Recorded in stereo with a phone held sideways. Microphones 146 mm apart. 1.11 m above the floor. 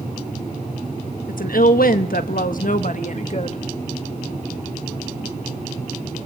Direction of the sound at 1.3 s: 70° left (ahead or behind).